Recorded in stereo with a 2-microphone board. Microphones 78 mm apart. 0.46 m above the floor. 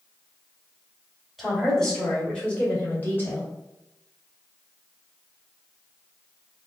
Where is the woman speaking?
Centre (ahead or behind), 1.7 m; by 3.5 s 30° left (ahead or behind), 2 m.